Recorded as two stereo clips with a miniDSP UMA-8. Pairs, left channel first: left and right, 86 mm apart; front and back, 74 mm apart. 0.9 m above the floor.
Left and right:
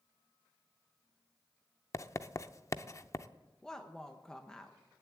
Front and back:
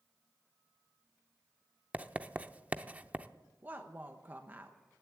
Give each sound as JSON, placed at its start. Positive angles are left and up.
{"t": 1.9, "sound": "writing", "azimuth_deg": 120, "distance_m": 0.5}
{"t": 3.6, "sound": "a woman speaking", "azimuth_deg": 165, "distance_m": 0.9}